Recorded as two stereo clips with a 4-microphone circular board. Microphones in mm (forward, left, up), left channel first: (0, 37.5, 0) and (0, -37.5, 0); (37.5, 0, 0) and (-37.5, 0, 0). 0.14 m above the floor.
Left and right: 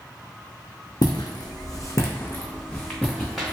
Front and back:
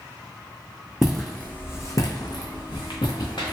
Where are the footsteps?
95° left, 0.5 m; by 3.5 s straight ahead, 1.1 m.